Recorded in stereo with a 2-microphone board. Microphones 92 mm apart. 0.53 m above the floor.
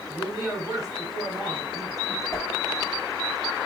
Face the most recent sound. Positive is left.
turn(degrees=35)  # may be behind; listen again after turning